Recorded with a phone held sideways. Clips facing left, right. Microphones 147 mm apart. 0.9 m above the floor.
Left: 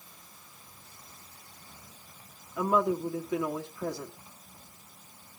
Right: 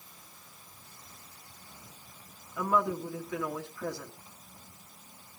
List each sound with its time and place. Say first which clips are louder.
2.6 s a woman speaking: left 3 dB; 20° left (ahead or behind), 1.6 m